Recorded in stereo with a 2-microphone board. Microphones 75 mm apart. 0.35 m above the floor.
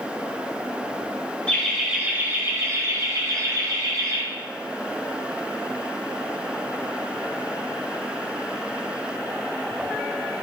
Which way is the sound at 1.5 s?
15° left (ahead or behind).